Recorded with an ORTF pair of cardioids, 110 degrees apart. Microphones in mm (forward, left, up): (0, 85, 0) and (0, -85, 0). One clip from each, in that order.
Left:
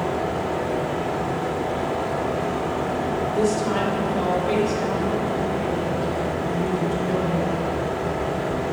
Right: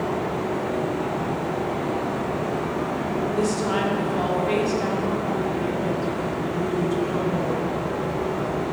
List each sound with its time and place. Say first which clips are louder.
0.0 s a fan: left 1 dB; 35° left, 1.6 m
3.3 s a woman speaking: left 2 dB; 20° right, 2.0 m